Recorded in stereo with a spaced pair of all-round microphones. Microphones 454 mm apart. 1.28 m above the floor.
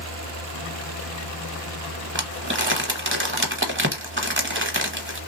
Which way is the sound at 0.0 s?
25° right (ahead or behind).